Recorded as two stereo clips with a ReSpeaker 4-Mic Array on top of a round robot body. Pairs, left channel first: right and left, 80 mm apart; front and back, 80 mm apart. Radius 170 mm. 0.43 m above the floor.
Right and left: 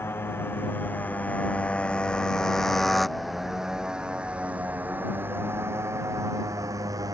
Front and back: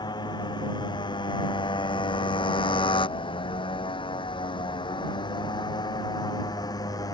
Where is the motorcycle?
30° right; by 7.2 s 45° left.